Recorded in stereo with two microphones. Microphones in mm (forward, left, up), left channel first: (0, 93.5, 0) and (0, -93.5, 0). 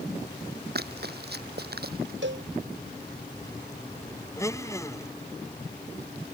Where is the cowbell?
90° right.